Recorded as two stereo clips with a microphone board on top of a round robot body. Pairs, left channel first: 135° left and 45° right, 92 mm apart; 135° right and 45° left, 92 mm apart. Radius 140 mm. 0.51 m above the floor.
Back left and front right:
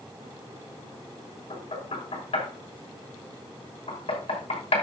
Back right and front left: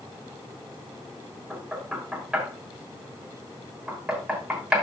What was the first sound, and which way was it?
Knocking, 130° left.